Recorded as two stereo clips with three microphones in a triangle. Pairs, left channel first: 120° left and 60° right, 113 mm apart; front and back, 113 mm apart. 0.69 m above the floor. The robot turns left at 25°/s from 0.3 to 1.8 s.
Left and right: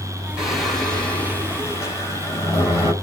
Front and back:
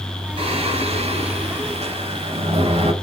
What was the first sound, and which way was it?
Singing, 145° right.